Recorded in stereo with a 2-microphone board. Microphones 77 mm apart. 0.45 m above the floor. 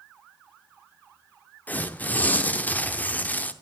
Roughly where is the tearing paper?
Left.